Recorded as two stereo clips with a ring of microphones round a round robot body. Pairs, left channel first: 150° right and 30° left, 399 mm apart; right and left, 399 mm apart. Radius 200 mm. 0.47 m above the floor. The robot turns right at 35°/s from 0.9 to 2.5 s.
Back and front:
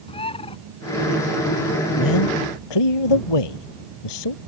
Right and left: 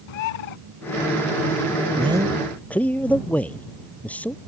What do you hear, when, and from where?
0.1 s a bird: 75° right
2.0 s a man speaking: 165° left; by 4.4 s 175° right